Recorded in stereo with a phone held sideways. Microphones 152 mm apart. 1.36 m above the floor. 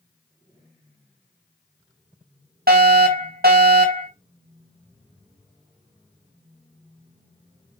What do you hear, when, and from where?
2.7 s a fire alarm: 75° right (ahead or behind), 2.5 m